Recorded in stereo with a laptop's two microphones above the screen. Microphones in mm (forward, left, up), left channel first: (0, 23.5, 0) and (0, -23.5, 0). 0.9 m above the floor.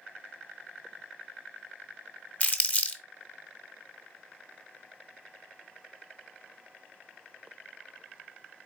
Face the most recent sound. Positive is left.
turn(degrees=30)  # may be behind; listen again after turning